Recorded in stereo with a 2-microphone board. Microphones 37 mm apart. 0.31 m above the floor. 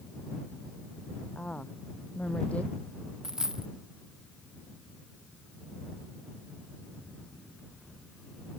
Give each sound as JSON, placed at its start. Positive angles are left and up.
{"t": 1.4, "sound": "a woman speaking", "side_deg": 40}
{"t": 3.2, "sound": "a dropped coin", "side_deg": -15}